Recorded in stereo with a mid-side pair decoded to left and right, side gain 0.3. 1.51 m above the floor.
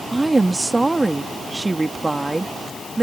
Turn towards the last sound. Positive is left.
turn(degrees=-25)